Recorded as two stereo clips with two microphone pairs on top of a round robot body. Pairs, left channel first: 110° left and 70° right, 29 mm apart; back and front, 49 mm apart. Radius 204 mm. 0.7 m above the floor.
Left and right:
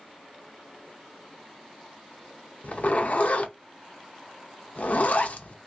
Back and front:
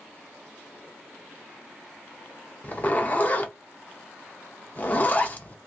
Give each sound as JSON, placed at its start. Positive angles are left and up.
{"t": 2.6, "sound": "a zipper", "azimuth_deg": 130, "distance_m": 0.7}